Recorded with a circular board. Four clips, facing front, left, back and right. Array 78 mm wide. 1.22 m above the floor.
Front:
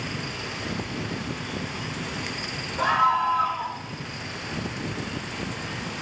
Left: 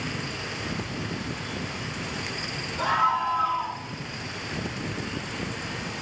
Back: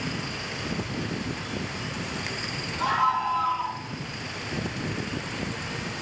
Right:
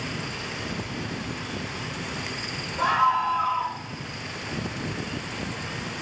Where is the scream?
35° right, 6.5 m.